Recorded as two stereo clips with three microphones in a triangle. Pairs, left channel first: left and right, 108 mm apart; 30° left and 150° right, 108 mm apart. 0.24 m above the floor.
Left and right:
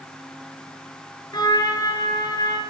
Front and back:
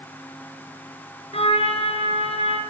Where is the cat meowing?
I don't hear a cat meowing.